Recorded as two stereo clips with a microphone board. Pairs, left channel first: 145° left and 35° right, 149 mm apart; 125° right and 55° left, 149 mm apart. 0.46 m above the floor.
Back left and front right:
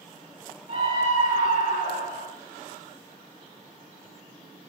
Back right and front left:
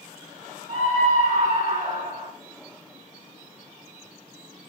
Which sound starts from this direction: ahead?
A scream, at 0.7 s.